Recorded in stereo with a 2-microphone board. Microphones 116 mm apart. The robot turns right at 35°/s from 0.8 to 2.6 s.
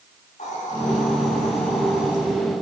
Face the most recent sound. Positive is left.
turn(degrees=150)